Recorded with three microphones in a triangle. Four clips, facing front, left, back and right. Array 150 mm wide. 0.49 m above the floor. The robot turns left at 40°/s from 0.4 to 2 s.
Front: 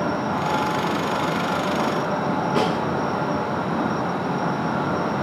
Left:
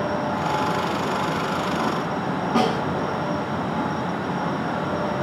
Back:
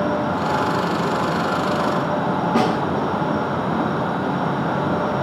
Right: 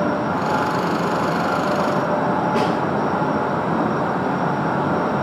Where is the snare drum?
140° left, 4.5 m.